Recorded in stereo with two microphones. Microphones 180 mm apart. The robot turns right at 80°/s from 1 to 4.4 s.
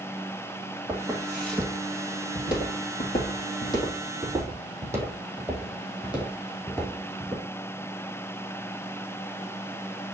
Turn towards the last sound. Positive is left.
turn(degrees=5)  # may be behind; listen again after turning